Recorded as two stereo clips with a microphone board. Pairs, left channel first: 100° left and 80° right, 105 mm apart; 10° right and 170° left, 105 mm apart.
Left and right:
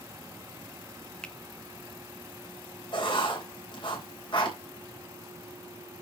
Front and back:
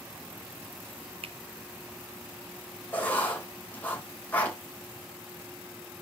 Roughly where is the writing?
Ahead left.